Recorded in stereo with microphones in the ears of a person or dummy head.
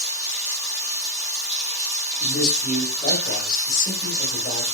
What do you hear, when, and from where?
0.0 s running water: 10° right (ahead or behind), 1.5 m
2.2 s a man speaking: 45° left (ahead or behind), 1.2 m